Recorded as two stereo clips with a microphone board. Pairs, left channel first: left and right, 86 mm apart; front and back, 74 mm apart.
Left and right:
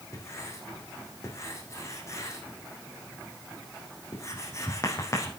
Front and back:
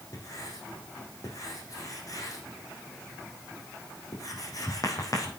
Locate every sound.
0.1 s writing: 35° left, 4.5 m